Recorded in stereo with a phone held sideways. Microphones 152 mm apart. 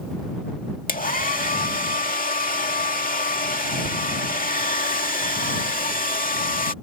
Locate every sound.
0.9 s a hair dryer: 65° left (ahead or behind)